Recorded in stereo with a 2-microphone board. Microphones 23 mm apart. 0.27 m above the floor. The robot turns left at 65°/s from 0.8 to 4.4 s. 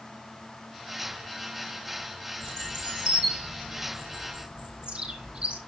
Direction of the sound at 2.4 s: 10° left (ahead or behind).